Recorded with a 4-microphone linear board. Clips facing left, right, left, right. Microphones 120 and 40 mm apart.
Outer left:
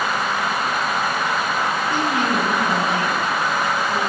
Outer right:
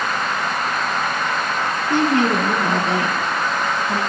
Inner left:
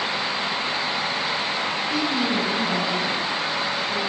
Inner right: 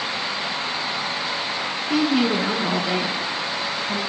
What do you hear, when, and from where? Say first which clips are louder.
1.9 s a woman speaking: outer right 7 dB, inner right 6 dB; 65° right (ahead or behind), 3 m; by 4.0 s 70° right (ahead or behind), 4 m